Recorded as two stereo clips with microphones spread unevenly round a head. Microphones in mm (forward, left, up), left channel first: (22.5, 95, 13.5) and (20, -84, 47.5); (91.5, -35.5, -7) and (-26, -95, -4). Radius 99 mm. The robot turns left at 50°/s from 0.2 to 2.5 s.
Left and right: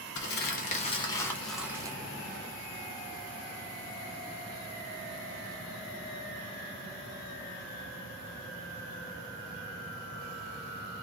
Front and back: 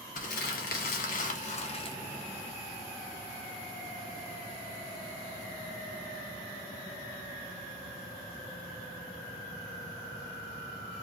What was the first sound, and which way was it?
Crumpling, 60° left.